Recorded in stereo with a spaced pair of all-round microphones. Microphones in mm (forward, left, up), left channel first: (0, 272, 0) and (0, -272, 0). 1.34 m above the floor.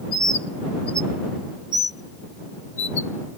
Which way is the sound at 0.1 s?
15° right (ahead or behind).